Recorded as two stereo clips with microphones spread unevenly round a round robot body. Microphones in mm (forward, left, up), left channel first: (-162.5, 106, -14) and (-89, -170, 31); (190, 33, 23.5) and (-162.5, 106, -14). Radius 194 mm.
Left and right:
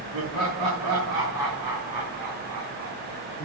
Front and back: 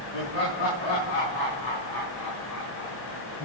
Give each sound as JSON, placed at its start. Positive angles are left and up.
{"t": 0.1, "sound": "laughter", "azimuth_deg": -40, "distance_m": 7.0}